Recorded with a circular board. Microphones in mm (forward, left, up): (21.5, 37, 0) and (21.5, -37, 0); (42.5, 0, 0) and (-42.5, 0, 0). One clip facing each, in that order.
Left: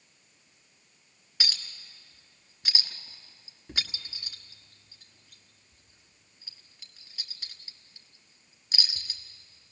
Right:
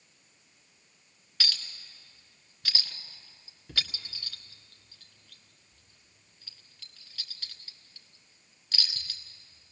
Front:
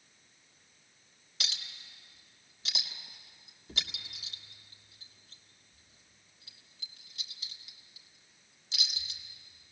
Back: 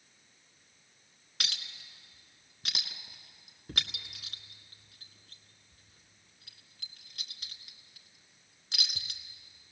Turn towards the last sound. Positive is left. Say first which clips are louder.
# even, back 2 dB
turn(degrees=160)